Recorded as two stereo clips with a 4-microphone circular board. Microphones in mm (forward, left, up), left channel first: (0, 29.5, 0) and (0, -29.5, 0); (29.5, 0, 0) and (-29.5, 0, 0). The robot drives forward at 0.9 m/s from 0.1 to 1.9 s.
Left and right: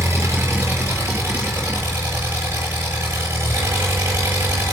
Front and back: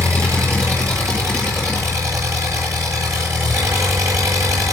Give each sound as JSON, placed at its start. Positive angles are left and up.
{"t": 0.0, "sound": "an engine running", "azimuth_deg": -140, "distance_m": 8.5}